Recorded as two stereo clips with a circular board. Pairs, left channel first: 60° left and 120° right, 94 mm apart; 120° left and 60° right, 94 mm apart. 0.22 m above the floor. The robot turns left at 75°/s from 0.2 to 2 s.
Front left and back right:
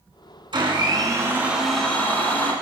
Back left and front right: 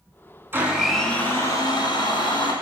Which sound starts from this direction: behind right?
A blender, at 0.5 s.